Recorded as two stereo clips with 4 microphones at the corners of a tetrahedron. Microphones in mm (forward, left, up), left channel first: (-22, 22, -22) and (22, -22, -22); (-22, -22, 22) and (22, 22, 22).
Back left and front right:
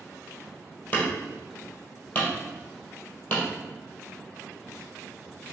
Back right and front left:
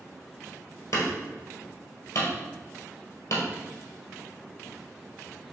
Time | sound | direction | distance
0.9 | hammering | 160° right | 1.3 m